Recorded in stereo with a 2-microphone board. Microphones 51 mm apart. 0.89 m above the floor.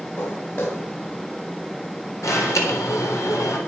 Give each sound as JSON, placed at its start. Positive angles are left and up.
{"t": 0.2, "sound": "footsteps", "side_deg": 50, "distance_m": 8.5}
{"t": 2.2, "sound": "an alarm", "side_deg": 75, "distance_m": 3.5}